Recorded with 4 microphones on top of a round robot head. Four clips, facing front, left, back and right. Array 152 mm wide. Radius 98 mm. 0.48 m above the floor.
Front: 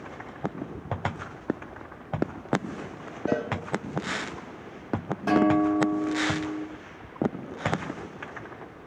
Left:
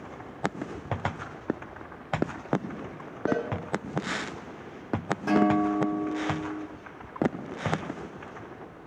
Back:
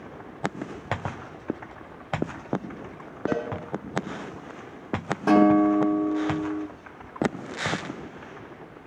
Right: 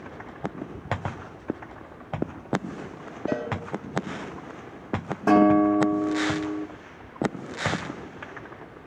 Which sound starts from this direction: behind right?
A guitar, at 5.3 s.